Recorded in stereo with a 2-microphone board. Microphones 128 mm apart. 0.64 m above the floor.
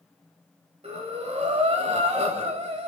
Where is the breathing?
55° right (ahead or behind), 2.5 m.